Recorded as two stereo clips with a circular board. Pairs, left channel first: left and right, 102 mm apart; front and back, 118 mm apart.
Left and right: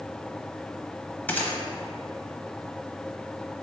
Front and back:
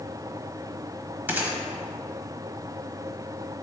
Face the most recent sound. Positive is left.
turn(degrees=135)